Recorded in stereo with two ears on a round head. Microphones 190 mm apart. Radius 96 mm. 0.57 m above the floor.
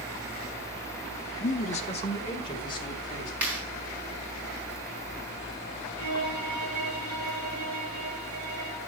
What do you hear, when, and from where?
1.4 s a man speaking: 35° left (ahead or behind), 0.7 m; by 3.3 s 20° left (ahead or behind), 3 m
3.4 s a clap: 10° right (ahead or behind), 5 m
6.0 s a violin: 25° right (ahead or behind), 6 m